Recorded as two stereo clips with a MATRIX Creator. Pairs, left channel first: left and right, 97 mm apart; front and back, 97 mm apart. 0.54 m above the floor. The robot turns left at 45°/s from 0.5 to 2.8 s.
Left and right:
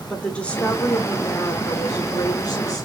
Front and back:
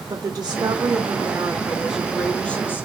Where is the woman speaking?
160° left, 1.1 m; by 2.9 s 55° left, 1.1 m.